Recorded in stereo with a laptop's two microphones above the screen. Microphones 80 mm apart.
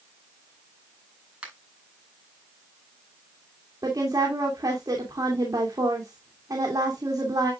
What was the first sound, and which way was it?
A finger snap, 15° right (ahead or behind).